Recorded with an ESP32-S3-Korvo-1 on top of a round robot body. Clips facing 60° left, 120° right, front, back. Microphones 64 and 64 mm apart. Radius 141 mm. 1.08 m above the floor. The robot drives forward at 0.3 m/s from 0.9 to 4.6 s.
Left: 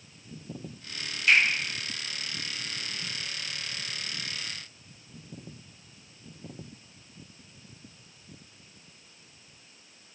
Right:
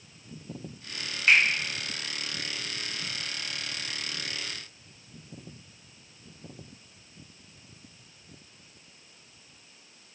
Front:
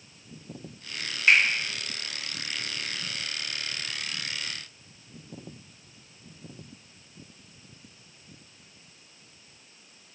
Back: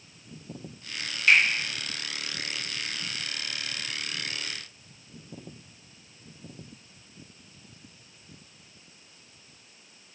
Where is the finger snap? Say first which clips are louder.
Right 1 dB, even; 65° right, 1.7 m.